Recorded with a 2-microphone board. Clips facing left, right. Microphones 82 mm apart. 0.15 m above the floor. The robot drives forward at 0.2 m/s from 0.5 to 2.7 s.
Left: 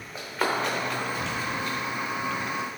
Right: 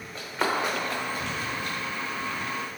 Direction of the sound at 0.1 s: 15° left (ahead or behind).